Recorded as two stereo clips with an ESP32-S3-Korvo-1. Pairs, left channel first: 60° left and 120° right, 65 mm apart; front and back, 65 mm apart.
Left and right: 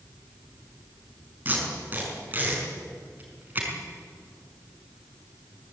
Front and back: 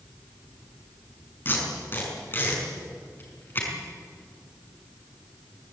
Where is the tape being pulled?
55° right, 5.5 m.